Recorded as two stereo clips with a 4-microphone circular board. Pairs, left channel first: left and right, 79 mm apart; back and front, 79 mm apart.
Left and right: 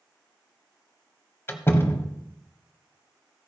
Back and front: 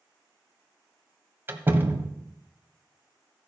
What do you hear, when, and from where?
1.5 s a door slam: 45° left, 1.2 m